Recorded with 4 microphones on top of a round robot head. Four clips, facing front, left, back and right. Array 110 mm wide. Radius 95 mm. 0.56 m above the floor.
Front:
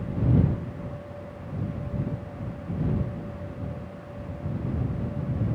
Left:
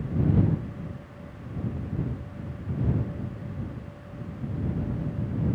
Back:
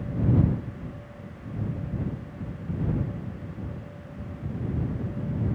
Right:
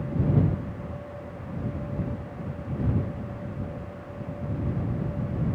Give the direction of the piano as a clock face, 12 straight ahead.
No piano in this recording.